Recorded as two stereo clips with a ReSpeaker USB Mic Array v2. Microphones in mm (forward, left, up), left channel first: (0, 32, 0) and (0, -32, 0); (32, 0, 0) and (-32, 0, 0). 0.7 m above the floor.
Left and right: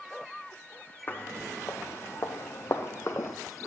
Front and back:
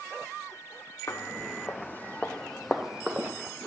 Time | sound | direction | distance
1.1 | footsteps | 35° left | 1.5 m